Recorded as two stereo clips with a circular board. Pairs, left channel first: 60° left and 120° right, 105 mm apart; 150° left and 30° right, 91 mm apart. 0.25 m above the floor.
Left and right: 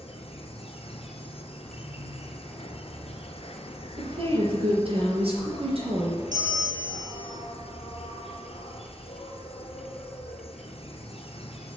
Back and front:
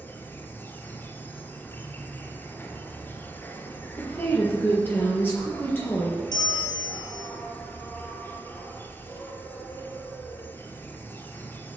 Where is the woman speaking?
145° right, 5 m.